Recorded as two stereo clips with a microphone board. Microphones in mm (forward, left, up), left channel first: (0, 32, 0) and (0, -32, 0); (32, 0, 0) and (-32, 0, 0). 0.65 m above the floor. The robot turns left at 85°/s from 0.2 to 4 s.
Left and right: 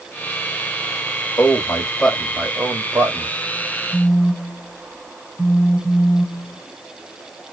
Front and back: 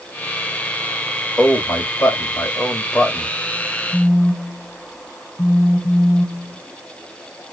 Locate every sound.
1.4 s a man speaking: 70° left, 1.2 m; by 3.3 s 95° right, 1.2 m
3.9 s a phone buzzing: 65° left, 2.0 m; by 6.6 s 60° left, 2.0 m